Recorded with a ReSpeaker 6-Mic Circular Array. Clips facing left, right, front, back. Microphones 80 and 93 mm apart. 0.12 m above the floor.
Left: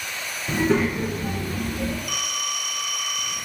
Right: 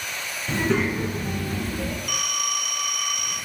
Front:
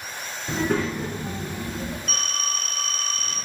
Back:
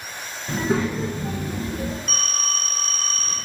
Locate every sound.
0.5 s a child speaking: 25° left, 0.6 m; by 2.0 s 165° right, 1.7 m
2.1 s a phone ringing: 125° right, 1.6 m